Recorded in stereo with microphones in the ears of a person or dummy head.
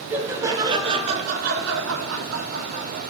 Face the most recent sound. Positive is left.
turn(degrees=-60)  # may be behind; listen again after turning